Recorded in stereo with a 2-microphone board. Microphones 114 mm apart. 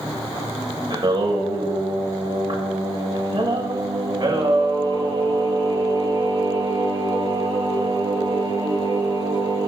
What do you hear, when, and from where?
0.9 s singing: 40° right (ahead or behind), 2 m